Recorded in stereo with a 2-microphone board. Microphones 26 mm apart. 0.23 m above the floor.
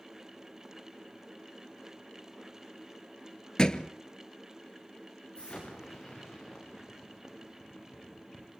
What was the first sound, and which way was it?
A thud, 35° left (ahead or behind).